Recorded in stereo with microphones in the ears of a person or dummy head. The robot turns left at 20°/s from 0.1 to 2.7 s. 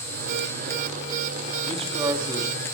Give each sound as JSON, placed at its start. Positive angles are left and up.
{"t": 1.7, "sound": "a man speaking", "side_deg": -30, "distance_m": 0.8}